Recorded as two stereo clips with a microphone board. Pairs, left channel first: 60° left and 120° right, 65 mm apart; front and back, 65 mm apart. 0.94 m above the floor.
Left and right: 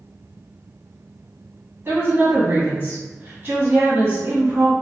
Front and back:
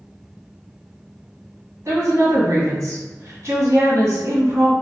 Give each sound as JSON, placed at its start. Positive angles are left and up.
{"t": 1.9, "sound": "a woman speaking", "azimuth_deg": -155, "distance_m": 1.2}